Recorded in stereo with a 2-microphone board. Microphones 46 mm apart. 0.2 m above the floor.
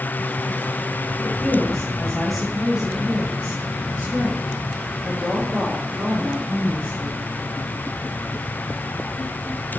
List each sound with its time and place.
1.2 s a woman speaking: 20° left (ahead or behind), 1.5 m; by 7.2 s 40° right (ahead or behind), 4 m